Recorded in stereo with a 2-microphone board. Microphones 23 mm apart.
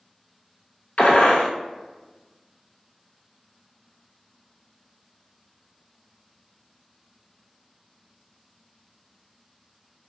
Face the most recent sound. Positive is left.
turn(degrees=75)  # may be behind; listen again after turning